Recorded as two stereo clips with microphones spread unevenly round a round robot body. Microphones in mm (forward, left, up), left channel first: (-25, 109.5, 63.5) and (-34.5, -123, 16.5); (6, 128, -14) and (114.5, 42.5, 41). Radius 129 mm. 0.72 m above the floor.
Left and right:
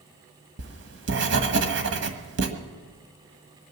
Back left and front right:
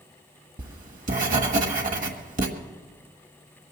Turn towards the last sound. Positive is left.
turn(degrees=-45)